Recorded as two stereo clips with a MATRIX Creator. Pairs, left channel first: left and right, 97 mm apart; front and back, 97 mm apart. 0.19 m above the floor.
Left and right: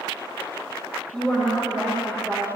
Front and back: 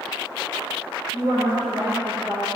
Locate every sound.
1.1 s a woman speaking: 165° left, 3 m